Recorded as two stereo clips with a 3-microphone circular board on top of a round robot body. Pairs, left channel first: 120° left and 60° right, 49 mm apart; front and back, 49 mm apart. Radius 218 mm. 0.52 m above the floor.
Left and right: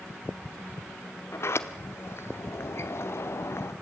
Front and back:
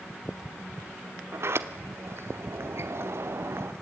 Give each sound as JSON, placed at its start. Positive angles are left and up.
{"t": 1.3, "sound": "a sliding door", "azimuth_deg": 150, "distance_m": 1.2}